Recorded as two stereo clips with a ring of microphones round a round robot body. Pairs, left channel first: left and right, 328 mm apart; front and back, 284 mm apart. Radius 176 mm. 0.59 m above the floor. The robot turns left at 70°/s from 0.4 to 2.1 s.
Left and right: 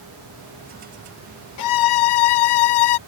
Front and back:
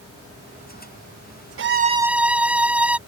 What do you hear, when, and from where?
1.6 s a violin: 130° left; by 3.0 s 95° left